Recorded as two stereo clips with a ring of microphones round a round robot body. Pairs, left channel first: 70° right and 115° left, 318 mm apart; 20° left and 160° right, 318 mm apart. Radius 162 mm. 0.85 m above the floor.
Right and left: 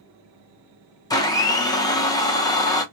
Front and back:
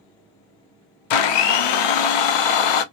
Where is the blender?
10° left, 0.5 m.